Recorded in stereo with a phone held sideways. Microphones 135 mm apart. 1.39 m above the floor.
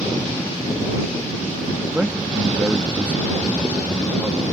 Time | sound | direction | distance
1.9 | a man speaking | 10° right (ahead or behind) | ?